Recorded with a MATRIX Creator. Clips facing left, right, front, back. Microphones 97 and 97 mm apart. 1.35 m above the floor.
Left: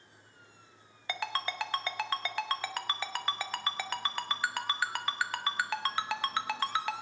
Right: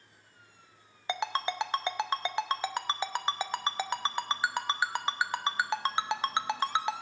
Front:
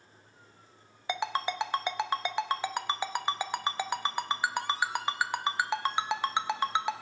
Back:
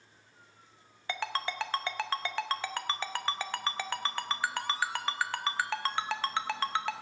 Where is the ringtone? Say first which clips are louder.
Right 4 dB, front 3 dB; 55° right, 0.6 m.